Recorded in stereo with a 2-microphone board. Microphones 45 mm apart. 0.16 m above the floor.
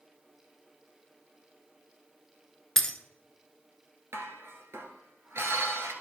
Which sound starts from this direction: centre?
Breaking glass, at 2.8 s.